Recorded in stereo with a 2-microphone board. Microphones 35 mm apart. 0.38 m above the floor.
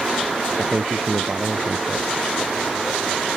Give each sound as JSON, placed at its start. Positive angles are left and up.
{"t": 0.6, "sound": "a man speaking", "side_deg": -40}